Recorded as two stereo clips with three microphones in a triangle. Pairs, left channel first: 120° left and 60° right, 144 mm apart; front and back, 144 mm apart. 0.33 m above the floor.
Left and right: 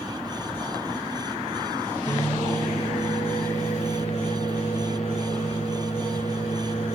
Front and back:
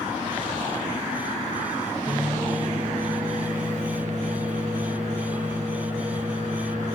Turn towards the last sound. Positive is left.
turn(degrees=155)